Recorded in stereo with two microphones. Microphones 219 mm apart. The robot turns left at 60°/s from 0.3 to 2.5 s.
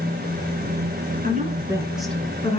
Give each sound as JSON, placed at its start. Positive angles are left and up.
{"t": 1.2, "sound": "a woman speaking", "azimuth_deg": -135, "distance_m": 2.0}